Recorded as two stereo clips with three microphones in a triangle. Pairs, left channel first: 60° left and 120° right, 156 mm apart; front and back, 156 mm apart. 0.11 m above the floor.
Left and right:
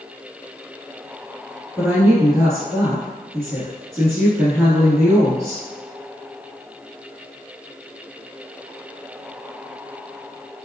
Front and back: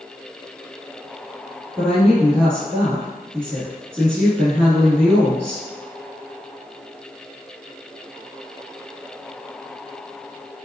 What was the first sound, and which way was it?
A woman speaking, 140° right.